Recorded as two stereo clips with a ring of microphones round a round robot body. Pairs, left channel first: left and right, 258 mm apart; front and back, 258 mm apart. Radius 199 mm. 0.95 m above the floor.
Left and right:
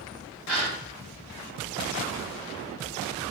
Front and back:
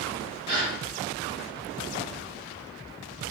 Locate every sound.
0.5 s a gasp: straight behind, 1.7 m